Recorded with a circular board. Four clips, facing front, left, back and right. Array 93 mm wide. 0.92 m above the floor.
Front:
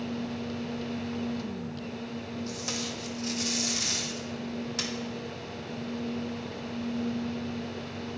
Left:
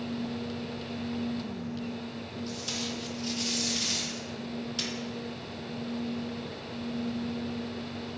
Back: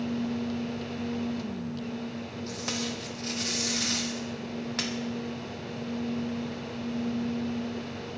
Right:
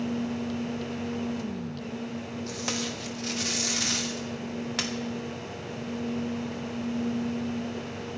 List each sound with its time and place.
2.5 s tape being pulled: 110° right, 1.1 m